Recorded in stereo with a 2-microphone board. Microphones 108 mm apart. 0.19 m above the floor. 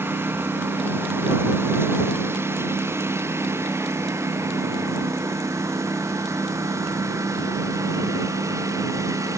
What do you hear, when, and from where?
0.0 s a lawn mower: 20° right (ahead or behind); by 9.4 s 30° right (ahead or behind)